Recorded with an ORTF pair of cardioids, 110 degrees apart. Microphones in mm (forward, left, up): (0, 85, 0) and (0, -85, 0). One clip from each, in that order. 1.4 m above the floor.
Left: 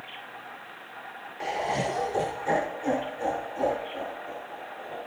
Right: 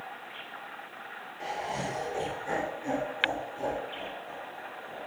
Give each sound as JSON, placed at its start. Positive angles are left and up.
{"t": 1.4, "sound": "laughter", "azimuth_deg": 30, "distance_m": 1.0}